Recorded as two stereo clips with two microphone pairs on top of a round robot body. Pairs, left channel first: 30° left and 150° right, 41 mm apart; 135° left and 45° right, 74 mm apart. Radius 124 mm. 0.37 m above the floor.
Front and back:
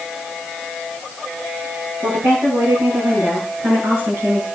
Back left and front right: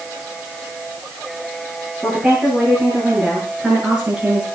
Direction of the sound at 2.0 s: 125° right.